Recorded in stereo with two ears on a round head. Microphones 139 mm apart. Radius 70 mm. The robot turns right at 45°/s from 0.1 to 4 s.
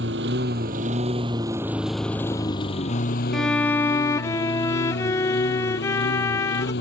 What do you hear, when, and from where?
0.0 s a lawn mower: 85° right; by 6.8 s 90° left
3.3 s a violin: 5° left; by 6.7 s 35° left